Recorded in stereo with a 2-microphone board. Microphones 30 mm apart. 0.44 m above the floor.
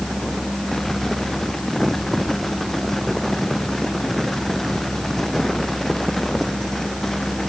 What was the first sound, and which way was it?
Only background noise.